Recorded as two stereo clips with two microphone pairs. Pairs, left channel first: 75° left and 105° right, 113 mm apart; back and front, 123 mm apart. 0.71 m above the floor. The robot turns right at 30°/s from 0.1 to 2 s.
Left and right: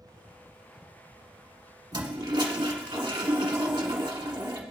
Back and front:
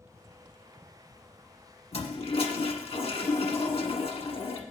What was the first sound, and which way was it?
A toilet flushing, 155° right.